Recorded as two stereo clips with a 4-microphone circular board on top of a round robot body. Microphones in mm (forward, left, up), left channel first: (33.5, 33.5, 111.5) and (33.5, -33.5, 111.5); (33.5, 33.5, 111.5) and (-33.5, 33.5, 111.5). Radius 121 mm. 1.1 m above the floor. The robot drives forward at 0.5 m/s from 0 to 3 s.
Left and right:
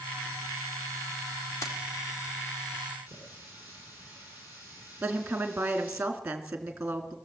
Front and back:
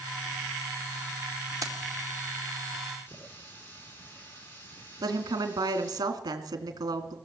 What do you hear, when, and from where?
1.6 s keys jangling: 140° left, 2 m; by 1.8 s 145° left, 2 m
3.1 s a running tap: 60° left, 8.5 m
5.0 s a woman speaking: 165° right, 2.5 m